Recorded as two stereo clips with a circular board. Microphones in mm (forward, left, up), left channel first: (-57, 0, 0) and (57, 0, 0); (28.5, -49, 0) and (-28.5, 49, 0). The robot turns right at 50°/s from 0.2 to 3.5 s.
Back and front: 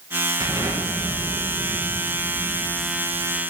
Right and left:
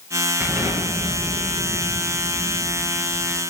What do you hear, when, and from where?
0.4 s an explosion: 50° left, 2.5 m; by 3.4 s 160° right, 2.5 m